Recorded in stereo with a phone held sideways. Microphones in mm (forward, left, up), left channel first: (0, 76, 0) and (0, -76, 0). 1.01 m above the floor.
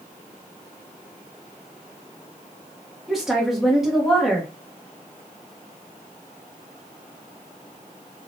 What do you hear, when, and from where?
3.1 s a woman speaking: centre (ahead or behind), 0.8 m